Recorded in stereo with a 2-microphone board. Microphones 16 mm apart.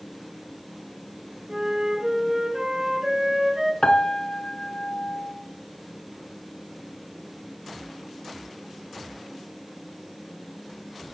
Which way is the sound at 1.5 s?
35° right (ahead or behind).